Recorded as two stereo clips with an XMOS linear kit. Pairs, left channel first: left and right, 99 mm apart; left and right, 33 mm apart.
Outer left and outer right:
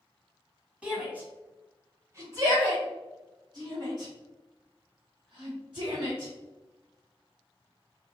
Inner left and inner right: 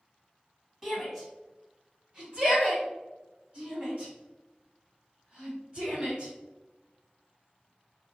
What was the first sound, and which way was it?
A shout, 10° right (ahead or behind).